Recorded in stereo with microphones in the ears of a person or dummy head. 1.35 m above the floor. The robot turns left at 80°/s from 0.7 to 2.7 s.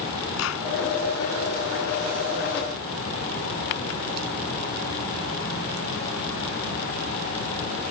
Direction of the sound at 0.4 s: 80° left.